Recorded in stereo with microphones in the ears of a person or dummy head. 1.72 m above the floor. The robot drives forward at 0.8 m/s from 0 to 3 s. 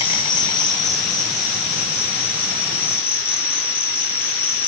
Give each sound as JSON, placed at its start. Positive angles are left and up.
{"t": 0.0, "sound": "an insect", "side_deg": 25, "distance_m": 1.7}